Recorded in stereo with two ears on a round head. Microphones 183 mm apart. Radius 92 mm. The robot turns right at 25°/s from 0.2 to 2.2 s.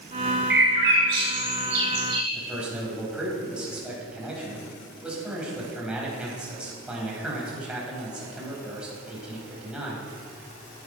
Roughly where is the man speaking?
Centre.